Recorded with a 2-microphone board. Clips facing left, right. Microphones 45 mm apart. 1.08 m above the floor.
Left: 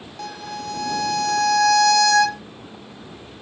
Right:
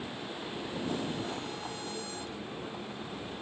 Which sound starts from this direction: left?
A violin, at 0.2 s.